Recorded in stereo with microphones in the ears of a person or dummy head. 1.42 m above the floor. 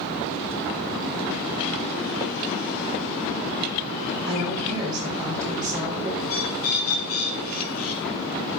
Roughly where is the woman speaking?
Right.